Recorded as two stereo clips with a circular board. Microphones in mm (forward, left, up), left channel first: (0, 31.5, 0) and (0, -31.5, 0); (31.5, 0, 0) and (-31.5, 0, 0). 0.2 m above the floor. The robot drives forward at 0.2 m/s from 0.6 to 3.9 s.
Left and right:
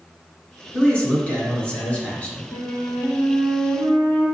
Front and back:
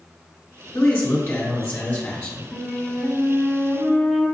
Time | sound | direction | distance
0.7 | a man speaking | 40° left | 1.5 m
2.5 | a flute | 105° left | 1.7 m